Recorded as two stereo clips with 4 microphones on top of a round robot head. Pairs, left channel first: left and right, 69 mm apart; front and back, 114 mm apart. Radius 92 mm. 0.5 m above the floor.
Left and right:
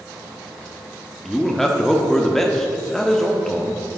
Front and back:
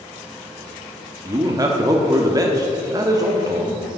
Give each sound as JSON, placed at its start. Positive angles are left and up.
{"t": 1.2, "sound": "a man speaking", "azimuth_deg": 170, "distance_m": 1.0}